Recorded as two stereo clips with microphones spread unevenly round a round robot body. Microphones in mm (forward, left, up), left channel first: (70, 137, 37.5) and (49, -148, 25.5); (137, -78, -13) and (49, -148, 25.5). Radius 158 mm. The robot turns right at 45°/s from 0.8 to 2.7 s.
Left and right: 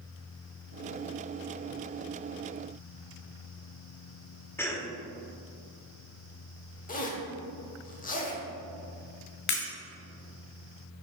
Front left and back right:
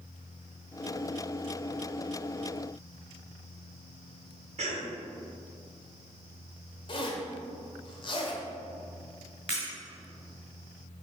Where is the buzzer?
I don't hear a buzzer.